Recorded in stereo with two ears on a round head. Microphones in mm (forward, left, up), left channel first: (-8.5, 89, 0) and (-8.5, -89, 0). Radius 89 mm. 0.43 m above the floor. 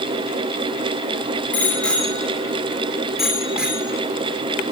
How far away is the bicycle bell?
About 5 m.